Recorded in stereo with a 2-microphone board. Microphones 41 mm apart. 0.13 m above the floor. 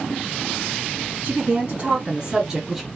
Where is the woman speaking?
45° right (ahead or behind), 2 m; by 2.9 s centre (ahead or behind), 1.2 m.